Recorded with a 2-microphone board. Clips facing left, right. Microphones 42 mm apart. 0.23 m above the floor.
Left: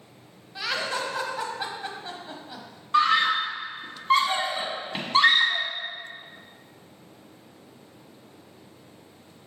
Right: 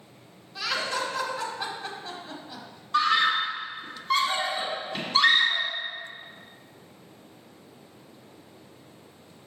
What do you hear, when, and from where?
0.6 s laughter: 20° left (ahead or behind), 1.1 m
2.9 s a scream: 30° left (ahead or behind), 1.3 m